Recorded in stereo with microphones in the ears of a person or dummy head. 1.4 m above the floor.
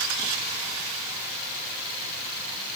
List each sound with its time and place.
Only background noise.